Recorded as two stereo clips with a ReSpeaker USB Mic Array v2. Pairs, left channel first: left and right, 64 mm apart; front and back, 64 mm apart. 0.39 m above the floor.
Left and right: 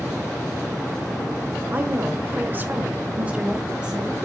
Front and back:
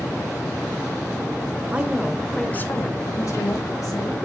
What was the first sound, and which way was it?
A woman speaking, 130° right.